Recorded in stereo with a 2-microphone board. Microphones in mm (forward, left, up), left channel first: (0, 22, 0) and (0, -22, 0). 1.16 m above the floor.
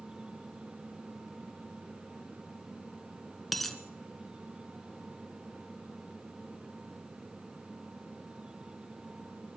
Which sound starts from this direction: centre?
A dropped coin, at 3.5 s.